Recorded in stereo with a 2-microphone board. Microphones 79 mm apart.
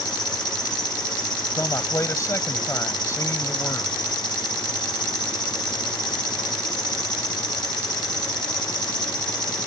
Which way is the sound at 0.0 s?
60° left (ahead or behind).